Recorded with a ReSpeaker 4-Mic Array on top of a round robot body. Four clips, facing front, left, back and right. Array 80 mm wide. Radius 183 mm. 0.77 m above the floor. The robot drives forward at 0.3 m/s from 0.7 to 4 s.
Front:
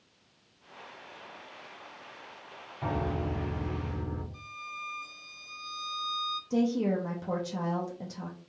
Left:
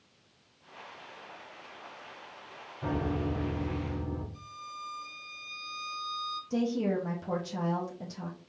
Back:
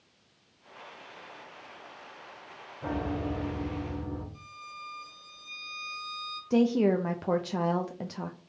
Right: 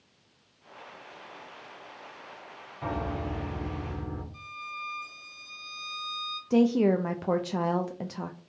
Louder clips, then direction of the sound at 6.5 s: Right 8 dB, back 4 dB; 125° right.